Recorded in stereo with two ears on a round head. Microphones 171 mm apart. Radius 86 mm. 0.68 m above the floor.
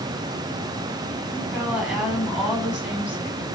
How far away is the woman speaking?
About 5.5 m.